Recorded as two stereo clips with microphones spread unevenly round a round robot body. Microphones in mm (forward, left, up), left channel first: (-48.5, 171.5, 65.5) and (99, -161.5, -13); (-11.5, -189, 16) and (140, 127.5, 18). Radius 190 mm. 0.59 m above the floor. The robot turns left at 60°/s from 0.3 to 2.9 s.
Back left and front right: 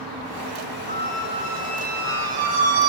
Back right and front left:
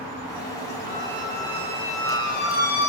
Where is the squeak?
40° left, 1.2 m; by 2.9 s 80° right, 1.2 m.